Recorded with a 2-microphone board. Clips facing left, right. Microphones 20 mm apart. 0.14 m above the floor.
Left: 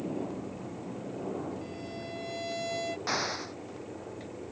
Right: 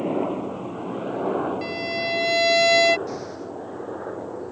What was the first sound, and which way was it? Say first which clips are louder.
A helicopter: right 11 dB; 55° right (ahead or behind).